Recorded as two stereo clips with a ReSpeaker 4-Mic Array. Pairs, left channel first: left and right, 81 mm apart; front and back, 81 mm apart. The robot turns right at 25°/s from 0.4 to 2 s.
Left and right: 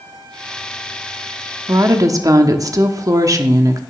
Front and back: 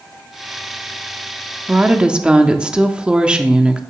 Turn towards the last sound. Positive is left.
turn(degrees=-105)